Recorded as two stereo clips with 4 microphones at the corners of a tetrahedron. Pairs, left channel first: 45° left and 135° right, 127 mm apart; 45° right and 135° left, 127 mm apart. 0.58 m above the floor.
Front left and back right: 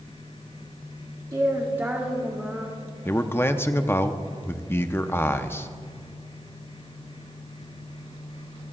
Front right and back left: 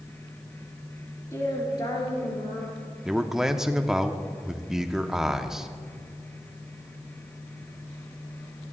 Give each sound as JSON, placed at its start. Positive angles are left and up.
{"t": 1.3, "sound": "a woman speaking", "azimuth_deg": -95, "distance_m": 1.4}
{"t": 3.0, "sound": "a man speaking", "azimuth_deg": 60, "distance_m": 0.6}